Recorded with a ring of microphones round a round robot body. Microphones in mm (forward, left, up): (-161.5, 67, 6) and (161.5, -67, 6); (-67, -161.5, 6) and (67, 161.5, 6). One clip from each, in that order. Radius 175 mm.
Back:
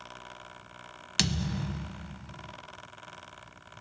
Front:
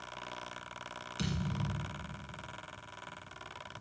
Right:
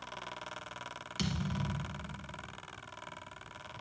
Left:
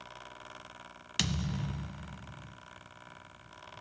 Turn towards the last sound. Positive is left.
turn(degrees=125)